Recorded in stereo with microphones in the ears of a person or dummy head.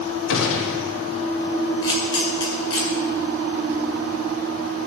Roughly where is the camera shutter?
Left.